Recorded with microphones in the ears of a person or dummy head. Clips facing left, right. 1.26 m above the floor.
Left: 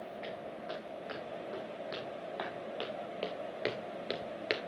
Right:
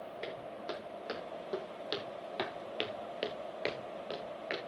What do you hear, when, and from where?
0.2 s footsteps: 50° right (ahead or behind), 5.5 m; by 4.6 s 45° left (ahead or behind), 1.8 m